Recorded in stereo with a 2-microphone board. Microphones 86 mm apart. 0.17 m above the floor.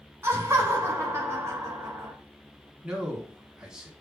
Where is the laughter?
30° right (ahead or behind), 1.4 m.